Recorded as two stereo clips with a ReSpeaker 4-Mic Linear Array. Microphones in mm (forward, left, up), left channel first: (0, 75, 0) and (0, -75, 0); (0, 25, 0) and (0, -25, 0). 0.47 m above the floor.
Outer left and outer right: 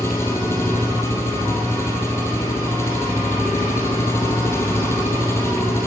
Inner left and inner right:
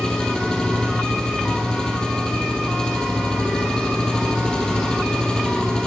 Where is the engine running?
15° left (ahead or behind), 4.5 m.